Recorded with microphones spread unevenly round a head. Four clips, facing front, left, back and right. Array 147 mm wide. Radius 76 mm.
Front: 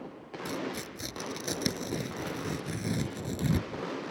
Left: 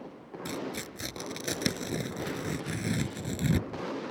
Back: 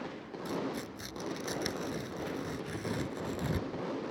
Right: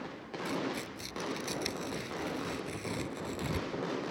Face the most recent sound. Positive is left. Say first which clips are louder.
# right 1 dB, even
turn(degrees=55)